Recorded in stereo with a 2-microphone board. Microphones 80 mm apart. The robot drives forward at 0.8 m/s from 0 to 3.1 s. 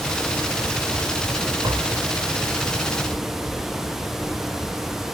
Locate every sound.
1.6 s tapping: 65° right (ahead or behind); by 2.0 s 70° right (ahead or behind)